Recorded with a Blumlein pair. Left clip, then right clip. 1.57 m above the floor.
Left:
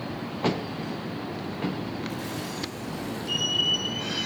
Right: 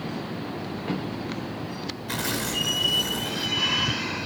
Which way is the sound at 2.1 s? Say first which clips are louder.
Right 6 dB; 55° right.